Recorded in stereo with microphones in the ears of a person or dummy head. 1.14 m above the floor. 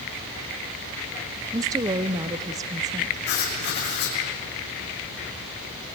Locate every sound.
1.5 s a woman speaking: 20° right (ahead or behind), 0.6 m
3.3 s writing: 55° left (ahead or behind), 5.5 m